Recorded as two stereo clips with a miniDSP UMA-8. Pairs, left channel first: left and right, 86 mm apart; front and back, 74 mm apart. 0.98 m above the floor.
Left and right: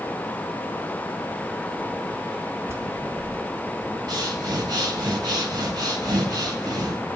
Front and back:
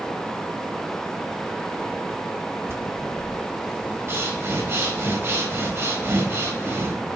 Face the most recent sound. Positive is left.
turn(degrees=-125)